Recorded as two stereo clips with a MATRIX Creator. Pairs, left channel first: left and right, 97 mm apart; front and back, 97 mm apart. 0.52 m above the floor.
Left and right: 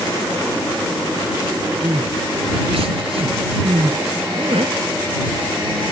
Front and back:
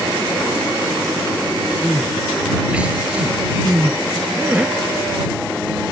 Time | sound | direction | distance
1.8 | crying | 105° right | ?